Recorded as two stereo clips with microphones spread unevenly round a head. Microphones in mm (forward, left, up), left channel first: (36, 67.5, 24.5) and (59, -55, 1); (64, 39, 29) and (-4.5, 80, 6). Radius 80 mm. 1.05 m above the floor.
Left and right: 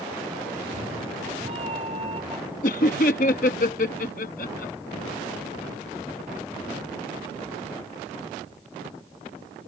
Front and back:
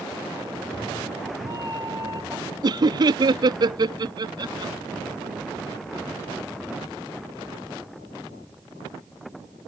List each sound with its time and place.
0.6 s a cat meowing: 135° right; by 2.5 s 140° right
2.6 s laughter: 140° left